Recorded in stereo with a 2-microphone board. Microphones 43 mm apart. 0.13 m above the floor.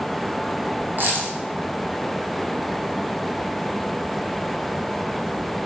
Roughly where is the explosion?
No explosion in this recording.